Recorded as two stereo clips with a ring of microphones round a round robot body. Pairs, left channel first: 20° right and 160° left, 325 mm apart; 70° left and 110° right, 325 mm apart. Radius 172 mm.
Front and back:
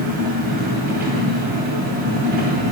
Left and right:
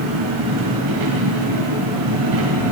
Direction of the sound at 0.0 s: 140° right.